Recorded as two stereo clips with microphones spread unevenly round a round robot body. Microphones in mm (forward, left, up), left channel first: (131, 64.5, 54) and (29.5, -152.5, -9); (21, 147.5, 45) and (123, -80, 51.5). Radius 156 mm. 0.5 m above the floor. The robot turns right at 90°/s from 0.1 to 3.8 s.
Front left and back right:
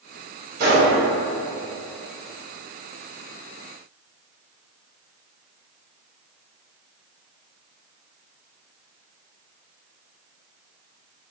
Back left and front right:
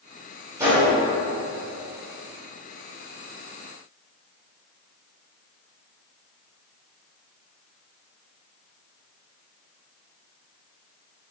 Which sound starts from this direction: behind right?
A gunshot, at 0.6 s.